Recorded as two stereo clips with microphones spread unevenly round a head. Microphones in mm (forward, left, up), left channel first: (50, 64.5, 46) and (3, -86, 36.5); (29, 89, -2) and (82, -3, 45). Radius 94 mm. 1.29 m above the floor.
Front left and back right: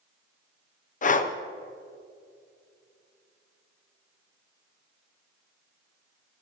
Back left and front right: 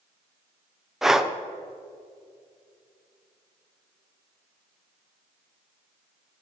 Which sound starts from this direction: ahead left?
Breathing, at 1.0 s.